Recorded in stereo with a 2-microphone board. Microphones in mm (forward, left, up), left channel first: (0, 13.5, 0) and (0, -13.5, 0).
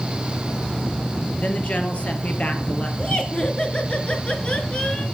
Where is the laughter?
45° left (ahead or behind), 2.5 m.